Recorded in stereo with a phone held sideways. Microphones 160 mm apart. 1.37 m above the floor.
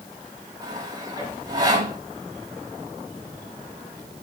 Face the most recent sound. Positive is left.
turn(degrees=-25)  # may be behind; listen again after turning